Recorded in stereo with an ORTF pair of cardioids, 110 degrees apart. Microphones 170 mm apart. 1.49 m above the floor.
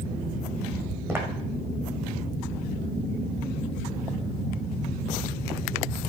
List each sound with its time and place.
1.1 s footsteps: 15° right, 6 m